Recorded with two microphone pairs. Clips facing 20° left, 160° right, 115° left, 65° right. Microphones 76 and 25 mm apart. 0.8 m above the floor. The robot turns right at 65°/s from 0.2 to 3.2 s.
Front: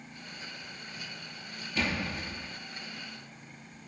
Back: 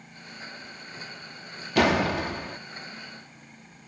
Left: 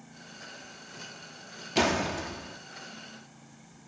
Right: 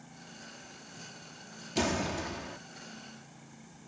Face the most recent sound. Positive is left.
turn(degrees=-85)